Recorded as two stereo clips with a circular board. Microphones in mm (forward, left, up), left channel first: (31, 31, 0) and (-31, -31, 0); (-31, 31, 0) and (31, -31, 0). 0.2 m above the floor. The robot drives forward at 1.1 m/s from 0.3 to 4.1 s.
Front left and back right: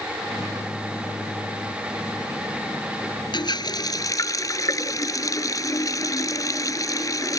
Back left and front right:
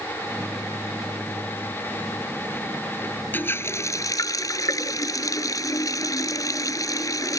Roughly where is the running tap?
Left.